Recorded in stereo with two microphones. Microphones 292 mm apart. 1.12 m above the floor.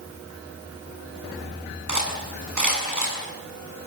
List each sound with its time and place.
1.9 s cutlery clinking: 85° right, 7.5 m